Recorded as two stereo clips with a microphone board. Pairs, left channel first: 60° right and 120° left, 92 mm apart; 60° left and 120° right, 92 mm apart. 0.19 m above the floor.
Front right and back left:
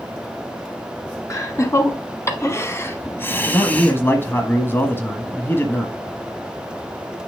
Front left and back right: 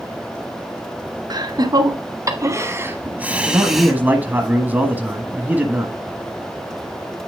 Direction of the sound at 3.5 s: 80° right.